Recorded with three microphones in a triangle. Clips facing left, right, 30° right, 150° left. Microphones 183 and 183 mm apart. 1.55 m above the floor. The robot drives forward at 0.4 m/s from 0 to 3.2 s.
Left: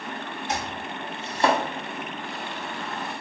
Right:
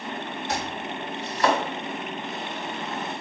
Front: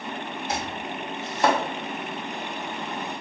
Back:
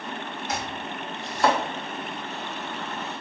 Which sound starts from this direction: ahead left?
Chopping, at 0.5 s.